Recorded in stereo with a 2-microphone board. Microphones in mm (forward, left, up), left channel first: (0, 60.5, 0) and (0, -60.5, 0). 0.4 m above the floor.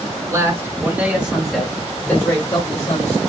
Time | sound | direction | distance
0.2 | a man speaking | 30° right (ahead or behind) | 2 m